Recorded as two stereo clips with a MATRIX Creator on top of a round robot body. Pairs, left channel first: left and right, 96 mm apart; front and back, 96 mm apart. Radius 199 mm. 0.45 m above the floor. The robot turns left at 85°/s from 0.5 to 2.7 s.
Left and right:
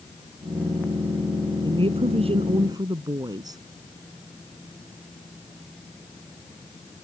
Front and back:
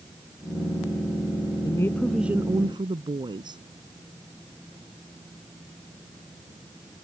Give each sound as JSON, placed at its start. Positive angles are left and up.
{"t": 1.6, "sound": "a woman speaking", "azimuth_deg": -50}